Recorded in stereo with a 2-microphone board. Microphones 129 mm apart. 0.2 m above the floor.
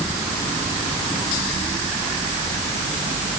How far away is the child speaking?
No child speaking in this recording.